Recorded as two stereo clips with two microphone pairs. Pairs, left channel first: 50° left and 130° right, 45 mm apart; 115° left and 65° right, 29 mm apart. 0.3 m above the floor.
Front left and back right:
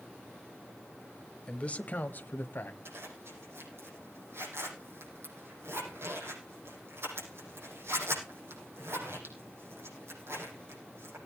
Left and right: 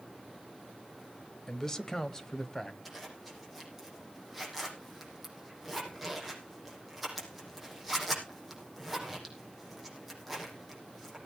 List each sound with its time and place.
1.5 s a man speaking: 70° left, 0.9 m; by 2.8 s 45° left, 1.5 m
2.9 s a zipper: 155° right, 6.5 m